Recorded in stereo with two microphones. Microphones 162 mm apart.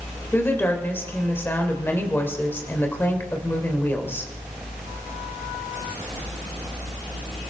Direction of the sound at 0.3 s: 15° left (ahead or behind).